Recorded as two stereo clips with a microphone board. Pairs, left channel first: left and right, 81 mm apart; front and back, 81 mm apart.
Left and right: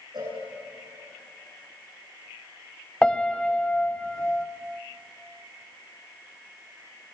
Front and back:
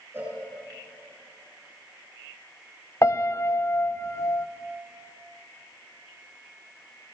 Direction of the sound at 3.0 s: 20° left.